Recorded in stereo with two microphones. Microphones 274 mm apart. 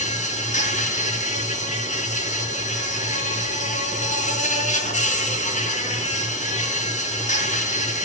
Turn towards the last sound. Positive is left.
turn(degrees=25)  # may be behind; listen again after turning